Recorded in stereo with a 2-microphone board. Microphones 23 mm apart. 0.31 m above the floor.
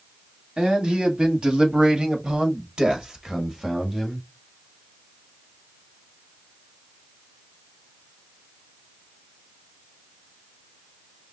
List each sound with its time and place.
0.6 s a man speaking: 40° right (ahead or behind), 2 m; by 4.3 s 15° right (ahead or behind), 1.5 m